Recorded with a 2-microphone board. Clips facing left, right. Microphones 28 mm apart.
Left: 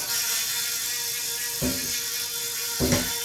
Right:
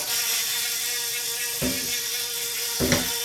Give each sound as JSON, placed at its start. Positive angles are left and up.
{"t": 0.0, "sound": "an insect", "side_deg": -60, "distance_m": 1.0}
{"t": 1.6, "sound": "a cupboard door", "side_deg": -45, "distance_m": 0.8}